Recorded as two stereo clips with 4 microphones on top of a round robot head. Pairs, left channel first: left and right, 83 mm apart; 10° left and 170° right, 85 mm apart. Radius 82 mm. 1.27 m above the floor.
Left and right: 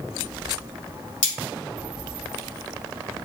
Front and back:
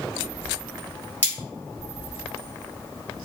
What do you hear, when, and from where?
1.2 s cutlery clinking: 80° left, 1.6 m